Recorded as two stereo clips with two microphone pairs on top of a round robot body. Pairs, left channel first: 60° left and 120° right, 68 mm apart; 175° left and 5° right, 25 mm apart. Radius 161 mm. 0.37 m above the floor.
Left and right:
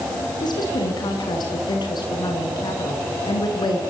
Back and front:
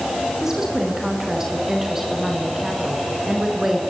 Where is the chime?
I don't hear a chime.